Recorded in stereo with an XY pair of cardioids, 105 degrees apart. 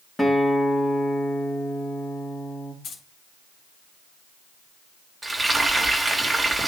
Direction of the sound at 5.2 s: 15° right.